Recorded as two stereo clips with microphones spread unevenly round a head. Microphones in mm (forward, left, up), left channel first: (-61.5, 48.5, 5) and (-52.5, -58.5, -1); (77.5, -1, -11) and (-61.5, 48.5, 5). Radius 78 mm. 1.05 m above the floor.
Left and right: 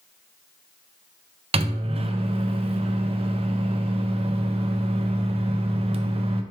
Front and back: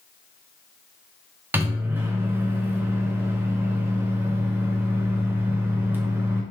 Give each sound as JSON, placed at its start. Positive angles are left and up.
{"t": 1.5, "sound": "a microwave", "azimuth_deg": -120, "distance_m": 0.6}